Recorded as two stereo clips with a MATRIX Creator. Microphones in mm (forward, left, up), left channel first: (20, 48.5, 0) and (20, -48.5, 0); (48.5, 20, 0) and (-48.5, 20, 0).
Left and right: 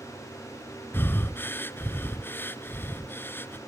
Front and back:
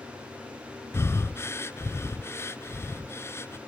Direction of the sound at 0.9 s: 40° left.